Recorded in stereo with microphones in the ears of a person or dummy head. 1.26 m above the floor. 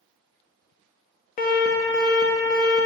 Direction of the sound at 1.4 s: 40° left (ahead or behind).